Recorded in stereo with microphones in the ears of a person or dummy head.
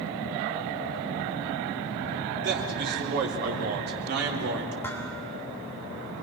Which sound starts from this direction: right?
A man speaking, at 2.4 s.